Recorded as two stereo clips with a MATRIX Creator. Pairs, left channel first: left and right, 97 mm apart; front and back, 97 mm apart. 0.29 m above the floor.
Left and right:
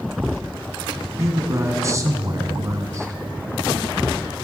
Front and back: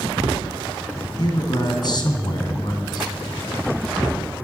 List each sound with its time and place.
1.2 s a man speaking: 35° right, 2 m